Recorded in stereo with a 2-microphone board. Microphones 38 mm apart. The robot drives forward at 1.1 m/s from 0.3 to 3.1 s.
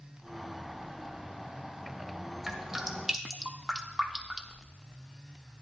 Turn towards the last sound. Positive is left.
turn(degrees=-10)  # may be behind; listen again after turning